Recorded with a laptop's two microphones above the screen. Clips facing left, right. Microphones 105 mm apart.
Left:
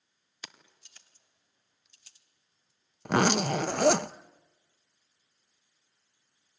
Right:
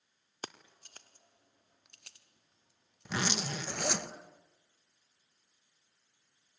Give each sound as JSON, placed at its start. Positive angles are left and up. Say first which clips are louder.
{"t": 0.4, "sound": "keys jangling", "louder": "right 6 dB", "side_deg": -45, "distance_m": 1.6}
{"t": 3.0, "sound": "a zipper", "louder": "left 11 dB", "side_deg": 65, "distance_m": 0.6}